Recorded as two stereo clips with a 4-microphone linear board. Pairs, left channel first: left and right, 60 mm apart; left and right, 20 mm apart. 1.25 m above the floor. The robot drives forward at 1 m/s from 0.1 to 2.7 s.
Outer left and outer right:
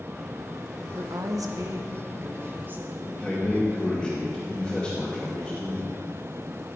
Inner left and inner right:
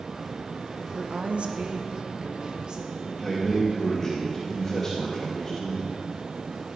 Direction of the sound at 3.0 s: 5° left (ahead or behind).